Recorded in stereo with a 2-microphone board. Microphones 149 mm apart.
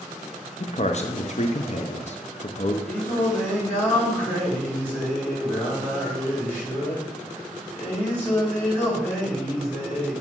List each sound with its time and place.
0.6 s a man speaking: 50° left (ahead or behind), 0.8 m
2.9 s singing: 10° left (ahead or behind), 5 m